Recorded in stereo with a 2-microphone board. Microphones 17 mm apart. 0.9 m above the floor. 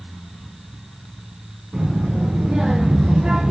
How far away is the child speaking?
About 5 m.